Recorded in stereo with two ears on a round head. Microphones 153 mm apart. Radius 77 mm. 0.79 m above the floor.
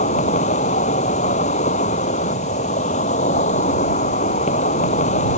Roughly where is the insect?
Left.